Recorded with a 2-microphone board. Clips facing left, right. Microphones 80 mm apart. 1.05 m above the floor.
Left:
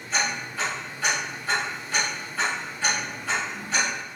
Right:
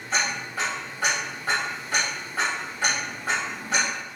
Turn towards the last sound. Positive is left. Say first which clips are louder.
# right 1 dB
turn(degrees=-60)  # may be behind; listen again after turning